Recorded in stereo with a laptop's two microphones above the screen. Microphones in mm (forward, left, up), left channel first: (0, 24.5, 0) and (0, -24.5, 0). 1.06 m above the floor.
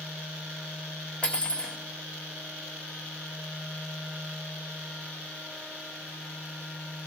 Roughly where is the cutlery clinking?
Left.